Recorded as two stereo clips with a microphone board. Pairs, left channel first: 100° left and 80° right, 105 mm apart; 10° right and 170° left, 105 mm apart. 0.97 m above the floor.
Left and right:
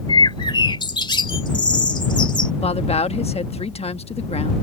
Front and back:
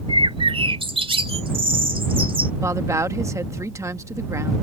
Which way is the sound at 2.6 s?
110° left.